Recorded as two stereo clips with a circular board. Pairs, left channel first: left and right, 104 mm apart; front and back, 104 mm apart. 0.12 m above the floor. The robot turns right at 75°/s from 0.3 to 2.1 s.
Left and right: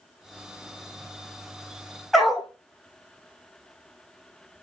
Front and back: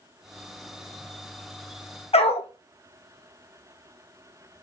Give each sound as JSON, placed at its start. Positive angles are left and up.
{"t": 2.1, "sound": "a dog barking", "azimuth_deg": 0, "distance_m": 1.0}